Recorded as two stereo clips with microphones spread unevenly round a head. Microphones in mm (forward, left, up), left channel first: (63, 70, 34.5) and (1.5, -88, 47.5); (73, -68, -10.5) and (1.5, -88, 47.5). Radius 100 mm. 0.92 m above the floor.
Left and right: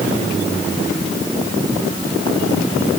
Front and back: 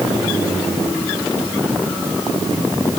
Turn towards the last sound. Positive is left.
No sound to turn to.